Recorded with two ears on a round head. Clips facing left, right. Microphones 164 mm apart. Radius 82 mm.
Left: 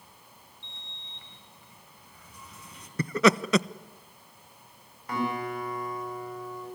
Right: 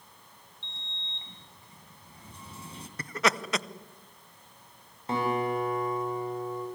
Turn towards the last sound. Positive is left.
turn(degrees=-25)  # may be behind; listen again after turning